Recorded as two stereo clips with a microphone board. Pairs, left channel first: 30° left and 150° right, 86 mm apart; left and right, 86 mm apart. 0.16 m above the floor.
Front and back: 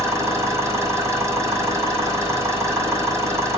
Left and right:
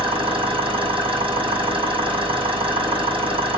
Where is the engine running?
95° right, 5.5 m.